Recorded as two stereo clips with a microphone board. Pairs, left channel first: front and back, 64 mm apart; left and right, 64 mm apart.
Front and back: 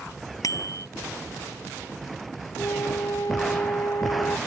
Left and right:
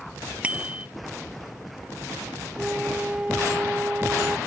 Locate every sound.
0.4 s a bicycle bell: 20° right
2.6 s a flute: 20° right